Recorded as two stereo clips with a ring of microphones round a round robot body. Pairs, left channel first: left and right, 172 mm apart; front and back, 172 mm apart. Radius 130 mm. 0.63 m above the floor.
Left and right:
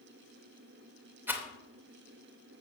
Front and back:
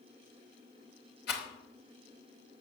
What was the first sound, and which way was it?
A rattle, 15° right.